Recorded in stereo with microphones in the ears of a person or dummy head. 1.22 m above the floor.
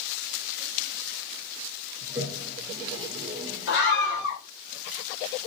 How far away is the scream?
About 1.1 m.